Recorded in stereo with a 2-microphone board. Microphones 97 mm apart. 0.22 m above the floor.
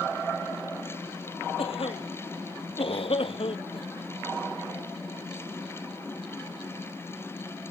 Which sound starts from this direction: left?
A cough, at 1.6 s.